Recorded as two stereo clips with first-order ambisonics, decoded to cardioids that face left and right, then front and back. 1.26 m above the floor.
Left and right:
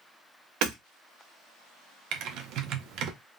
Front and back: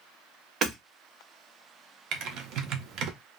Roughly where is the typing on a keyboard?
Behind right.